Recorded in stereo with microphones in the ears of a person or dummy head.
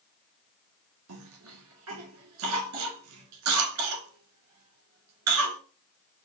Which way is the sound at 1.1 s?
75° right (ahead or behind).